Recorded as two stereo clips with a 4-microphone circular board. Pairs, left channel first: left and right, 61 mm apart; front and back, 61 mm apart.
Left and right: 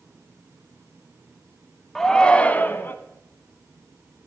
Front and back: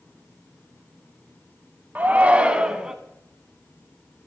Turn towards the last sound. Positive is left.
turn(degrees=105)